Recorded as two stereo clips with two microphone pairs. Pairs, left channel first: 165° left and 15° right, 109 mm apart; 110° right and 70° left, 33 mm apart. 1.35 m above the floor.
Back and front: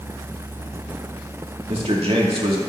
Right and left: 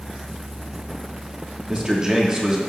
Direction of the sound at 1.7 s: 5° left.